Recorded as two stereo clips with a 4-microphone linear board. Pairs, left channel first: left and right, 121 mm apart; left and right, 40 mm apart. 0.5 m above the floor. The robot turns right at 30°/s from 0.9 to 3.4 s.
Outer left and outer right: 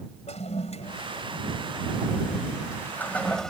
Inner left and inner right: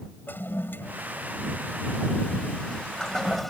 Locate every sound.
0.3 s a toilet flushing: 65° left (ahead or behind); by 3.5 s 5° left (ahead or behind)